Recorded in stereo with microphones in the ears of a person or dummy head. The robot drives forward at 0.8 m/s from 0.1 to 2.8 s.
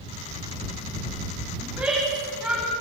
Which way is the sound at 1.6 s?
5° right (ahead or behind).